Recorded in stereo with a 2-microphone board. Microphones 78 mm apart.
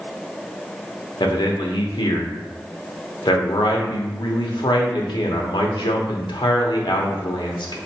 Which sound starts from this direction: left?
A man speaking, at 1.2 s.